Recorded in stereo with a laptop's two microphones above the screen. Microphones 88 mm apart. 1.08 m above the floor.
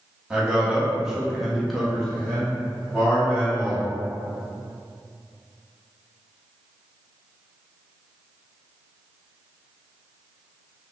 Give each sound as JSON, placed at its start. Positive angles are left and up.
{"t": 0.3, "sound": "a man speaking", "side_deg": -10, "distance_m": 0.9}